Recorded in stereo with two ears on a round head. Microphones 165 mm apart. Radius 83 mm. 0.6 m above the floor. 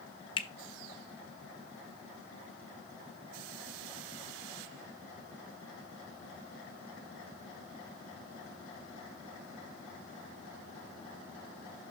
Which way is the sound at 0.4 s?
25° left (ahead or behind).